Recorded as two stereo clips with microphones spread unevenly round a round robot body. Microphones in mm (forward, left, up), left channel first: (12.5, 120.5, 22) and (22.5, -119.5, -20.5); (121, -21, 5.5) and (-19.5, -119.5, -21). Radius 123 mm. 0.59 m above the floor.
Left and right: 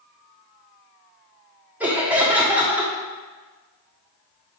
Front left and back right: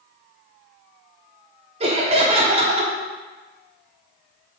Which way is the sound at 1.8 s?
160° right.